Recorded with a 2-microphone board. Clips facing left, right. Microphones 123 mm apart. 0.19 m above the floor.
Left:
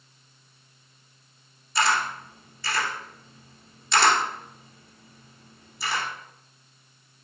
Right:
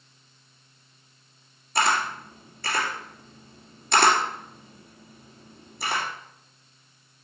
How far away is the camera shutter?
About 2.5 m.